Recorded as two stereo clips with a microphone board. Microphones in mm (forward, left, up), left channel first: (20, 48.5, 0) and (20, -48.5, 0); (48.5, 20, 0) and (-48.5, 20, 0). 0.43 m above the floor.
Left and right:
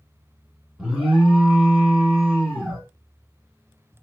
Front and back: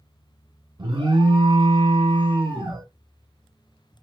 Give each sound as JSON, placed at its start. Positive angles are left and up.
{"t": 0.8, "sound": "an alarm", "azimuth_deg": -170, "distance_m": 1.6}